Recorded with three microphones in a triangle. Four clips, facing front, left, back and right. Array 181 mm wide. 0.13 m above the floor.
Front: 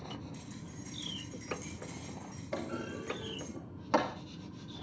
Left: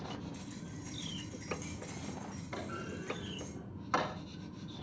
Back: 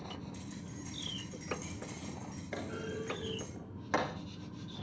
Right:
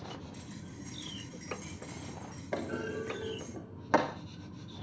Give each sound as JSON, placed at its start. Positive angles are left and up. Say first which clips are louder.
{"t": 0.3, "sound": "keys jangling", "louder": "even, back 1 dB", "azimuth_deg": -175, "distance_m": 7.0}
{"t": 2.5, "sound": "a clunk", "louder": "right 8 dB, front 2 dB", "azimuth_deg": -80, "distance_m": 3.0}